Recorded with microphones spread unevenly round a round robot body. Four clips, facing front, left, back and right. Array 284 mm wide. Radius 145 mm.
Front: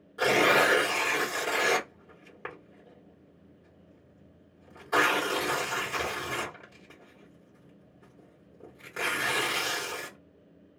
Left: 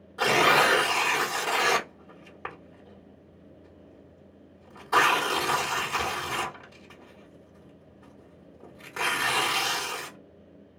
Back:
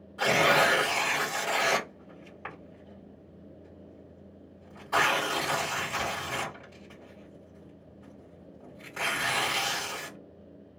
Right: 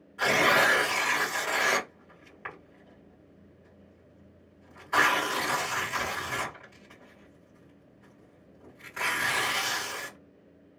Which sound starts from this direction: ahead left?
Tearing paper, at 0.2 s.